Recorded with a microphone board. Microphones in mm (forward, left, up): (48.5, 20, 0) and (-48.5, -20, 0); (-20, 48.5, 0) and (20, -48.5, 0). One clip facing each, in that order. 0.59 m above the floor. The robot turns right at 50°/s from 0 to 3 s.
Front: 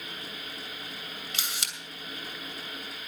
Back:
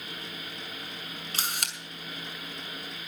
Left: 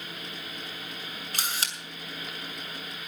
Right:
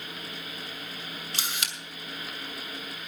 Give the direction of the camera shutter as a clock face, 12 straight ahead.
7 o'clock.